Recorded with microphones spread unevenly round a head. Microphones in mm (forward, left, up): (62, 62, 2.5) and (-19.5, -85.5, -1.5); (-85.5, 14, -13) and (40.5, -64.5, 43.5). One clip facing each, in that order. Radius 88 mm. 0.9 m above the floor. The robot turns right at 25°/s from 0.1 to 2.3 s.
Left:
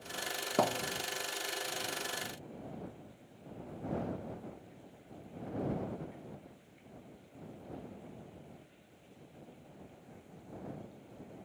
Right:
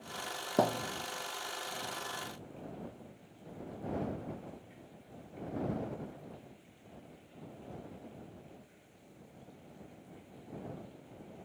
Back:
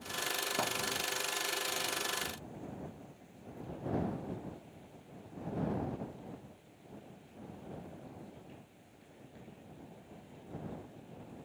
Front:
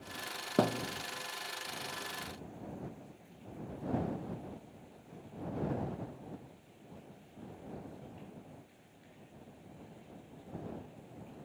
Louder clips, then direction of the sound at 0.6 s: Right 1 dB, front 9 dB; 40° right.